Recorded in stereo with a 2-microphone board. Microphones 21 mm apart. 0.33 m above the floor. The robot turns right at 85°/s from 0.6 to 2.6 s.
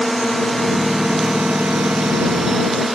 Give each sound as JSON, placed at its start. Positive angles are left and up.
{"t": 0.0, "sound": "a drone", "side_deg": 20}